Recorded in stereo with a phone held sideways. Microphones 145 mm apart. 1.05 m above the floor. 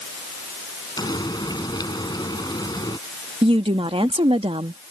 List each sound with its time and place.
1.0 s frying: 30° left (ahead or behind)
3.4 s a woman speaking: 40° right (ahead or behind)